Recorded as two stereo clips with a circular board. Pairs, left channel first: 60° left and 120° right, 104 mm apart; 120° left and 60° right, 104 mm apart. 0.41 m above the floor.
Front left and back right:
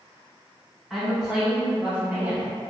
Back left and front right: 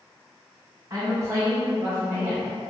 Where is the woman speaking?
30° right, 1.2 m; by 2.5 s 110° right, 1.0 m.